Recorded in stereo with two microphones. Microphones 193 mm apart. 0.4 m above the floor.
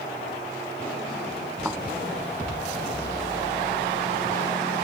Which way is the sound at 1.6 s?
Centre (ahead or behind).